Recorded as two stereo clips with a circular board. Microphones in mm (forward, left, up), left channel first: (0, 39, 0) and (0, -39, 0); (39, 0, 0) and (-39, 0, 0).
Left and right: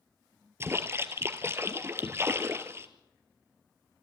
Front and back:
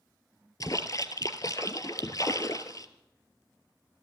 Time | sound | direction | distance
0.6 | a splash | 35° right | 1.1 m